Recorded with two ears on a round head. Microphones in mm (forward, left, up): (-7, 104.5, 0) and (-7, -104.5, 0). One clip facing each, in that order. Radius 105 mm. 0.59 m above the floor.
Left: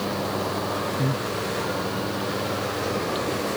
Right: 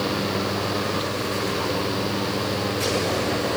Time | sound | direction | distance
1.0 | breathing | 65° left (ahead or behind) | ?